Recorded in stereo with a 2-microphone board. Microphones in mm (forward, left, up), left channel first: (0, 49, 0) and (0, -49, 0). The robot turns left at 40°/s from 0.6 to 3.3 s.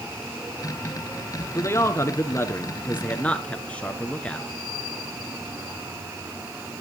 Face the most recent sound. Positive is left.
turn(degrees=15)  # may be behind; listen again after turning